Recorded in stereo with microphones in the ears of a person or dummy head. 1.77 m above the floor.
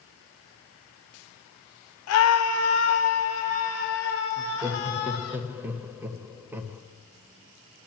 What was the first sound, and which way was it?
A scream, 75° left (ahead or behind).